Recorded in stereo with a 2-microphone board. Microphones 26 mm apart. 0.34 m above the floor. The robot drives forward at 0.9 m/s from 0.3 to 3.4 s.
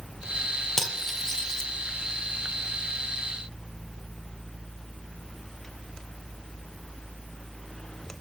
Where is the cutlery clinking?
15° left (ahead or behind), 1.8 m; by 1.6 s 25° left (ahead or behind), 1.2 m.